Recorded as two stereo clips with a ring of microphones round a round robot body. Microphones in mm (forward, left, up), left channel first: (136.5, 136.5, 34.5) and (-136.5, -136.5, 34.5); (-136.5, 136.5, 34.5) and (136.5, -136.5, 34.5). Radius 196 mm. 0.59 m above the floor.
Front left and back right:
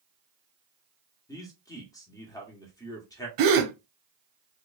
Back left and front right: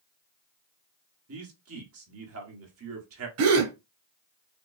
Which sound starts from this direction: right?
A gasp, at 3.4 s.